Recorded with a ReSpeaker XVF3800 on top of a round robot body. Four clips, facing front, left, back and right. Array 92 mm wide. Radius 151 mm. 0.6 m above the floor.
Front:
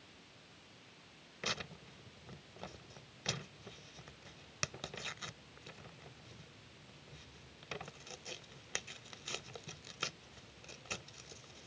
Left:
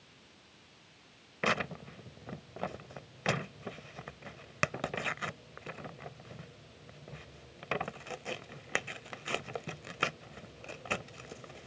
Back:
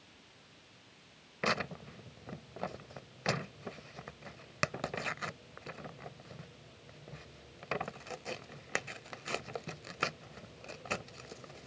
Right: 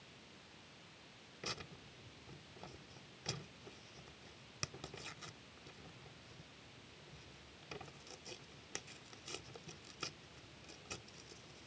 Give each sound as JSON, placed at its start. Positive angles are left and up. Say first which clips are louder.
{"t": 1.4, "sound": "tearing paper", "louder": "left 17 dB, back 9 dB", "azimuth_deg": 125}